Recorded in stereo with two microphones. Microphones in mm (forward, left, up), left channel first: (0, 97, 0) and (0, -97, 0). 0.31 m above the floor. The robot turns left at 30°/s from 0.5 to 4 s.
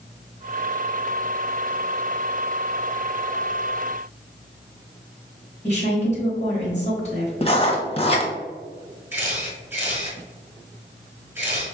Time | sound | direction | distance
5.6 | a woman speaking | 35° left (ahead or behind) | 1.3 m
7.4 | writing | 30° left (ahead or behind) | 0.8 m
9.1 | a camera shutter | 15° right (ahead or behind) | 1.5 m